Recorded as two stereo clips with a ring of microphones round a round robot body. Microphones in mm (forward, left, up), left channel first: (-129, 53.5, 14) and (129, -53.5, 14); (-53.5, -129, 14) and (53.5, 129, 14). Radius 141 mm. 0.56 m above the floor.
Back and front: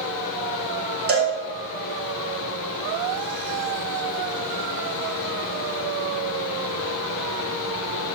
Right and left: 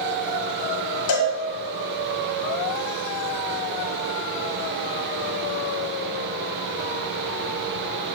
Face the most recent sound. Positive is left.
turn(degrees=-80)